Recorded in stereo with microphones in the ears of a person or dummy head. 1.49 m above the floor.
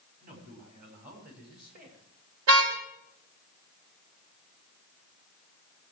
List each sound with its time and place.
0.2 s a man speaking: 40° right (ahead or behind), 6 m; by 2.0 s 50° right (ahead or behind), 6.5 m
2.5 s a car horn: 70° right (ahead or behind), 3.5 m